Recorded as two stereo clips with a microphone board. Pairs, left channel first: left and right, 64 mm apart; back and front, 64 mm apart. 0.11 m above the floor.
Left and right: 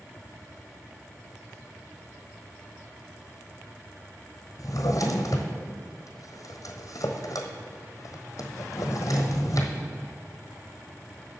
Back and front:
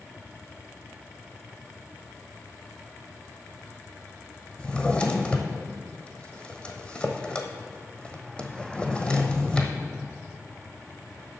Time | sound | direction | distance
4.6 | a drawer | 110° left | 1.2 m